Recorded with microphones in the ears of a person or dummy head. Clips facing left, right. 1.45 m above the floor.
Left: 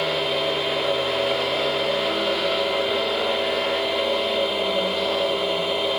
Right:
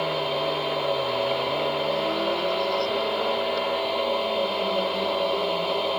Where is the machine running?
15° left (ahead or behind).